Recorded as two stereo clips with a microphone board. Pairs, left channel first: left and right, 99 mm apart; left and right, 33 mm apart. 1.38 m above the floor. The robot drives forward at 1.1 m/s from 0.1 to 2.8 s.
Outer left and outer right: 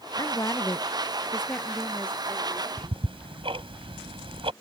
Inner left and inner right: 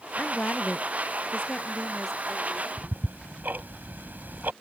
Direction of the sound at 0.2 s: 40° left (ahead or behind).